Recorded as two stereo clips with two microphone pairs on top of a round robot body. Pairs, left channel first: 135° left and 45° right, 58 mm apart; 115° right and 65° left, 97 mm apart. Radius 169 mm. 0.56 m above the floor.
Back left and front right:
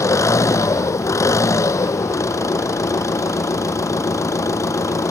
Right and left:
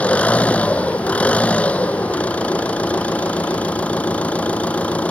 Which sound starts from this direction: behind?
An engine running, at 0.0 s.